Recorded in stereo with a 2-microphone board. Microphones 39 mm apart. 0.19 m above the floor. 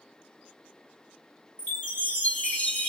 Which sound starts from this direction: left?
A chime, at 1.6 s.